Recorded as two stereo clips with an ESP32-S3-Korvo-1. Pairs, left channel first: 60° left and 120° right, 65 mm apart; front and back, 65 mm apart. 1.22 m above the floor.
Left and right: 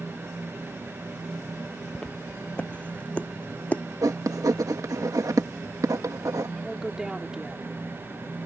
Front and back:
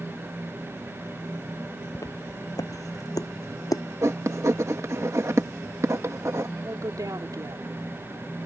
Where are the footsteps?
10° right; by 3.8 s straight ahead.